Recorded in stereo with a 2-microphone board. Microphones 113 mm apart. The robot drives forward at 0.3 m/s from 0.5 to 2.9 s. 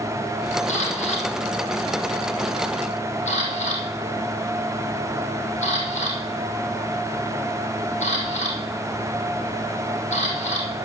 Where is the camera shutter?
75° left (ahead or behind), 4 m; by 10.7 s 70° left (ahead or behind), 4.5 m.